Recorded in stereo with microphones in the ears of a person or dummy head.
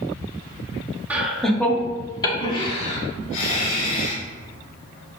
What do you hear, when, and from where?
1.1 s laughter: 10° right (ahead or behind), 1.7 m; by 4.2 s 50° left (ahead or behind), 4 m